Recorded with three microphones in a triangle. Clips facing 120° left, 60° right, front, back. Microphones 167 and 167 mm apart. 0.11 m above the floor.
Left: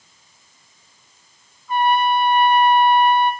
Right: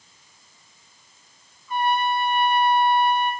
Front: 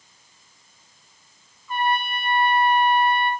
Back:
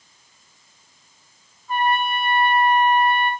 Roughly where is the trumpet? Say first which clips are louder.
Left 5 dB, back 3 dB; behind left.